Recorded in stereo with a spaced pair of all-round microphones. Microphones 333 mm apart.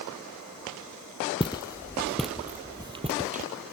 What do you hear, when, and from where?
1.4 s footsteps: 15° left (ahead or behind); by 3.5 s 25° right (ahead or behind)